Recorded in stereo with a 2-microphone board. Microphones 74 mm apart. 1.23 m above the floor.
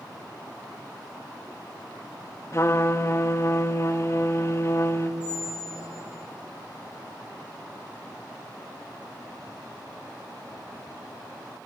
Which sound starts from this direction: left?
A trumpet, at 2.5 s.